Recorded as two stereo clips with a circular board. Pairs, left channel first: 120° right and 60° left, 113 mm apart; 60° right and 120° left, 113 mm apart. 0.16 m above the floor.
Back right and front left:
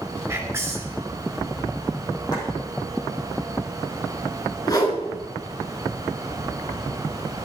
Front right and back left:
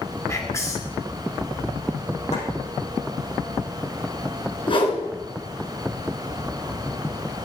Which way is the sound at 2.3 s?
65° right.